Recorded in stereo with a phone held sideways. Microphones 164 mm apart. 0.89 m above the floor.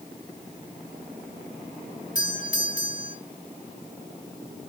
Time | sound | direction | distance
2.1 | a doorbell | 50° left (ahead or behind) | 2.5 m